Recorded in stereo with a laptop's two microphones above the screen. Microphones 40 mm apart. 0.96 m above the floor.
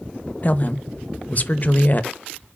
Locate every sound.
0.4 s a woman speaking: 40° left (ahead or behind), 1.0 m